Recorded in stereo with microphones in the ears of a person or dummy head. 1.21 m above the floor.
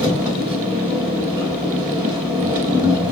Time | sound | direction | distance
0.0 | an engine running | 10° right (ahead or behind) | 3 m